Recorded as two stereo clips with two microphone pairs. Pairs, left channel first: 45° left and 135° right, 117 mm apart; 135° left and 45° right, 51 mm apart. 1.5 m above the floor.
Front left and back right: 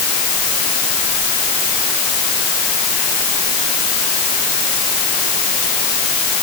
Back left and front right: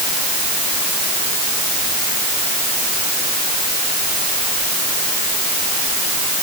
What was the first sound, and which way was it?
Only background noise.